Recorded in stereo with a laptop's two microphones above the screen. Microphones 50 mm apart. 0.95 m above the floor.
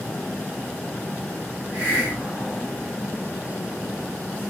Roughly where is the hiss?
Right.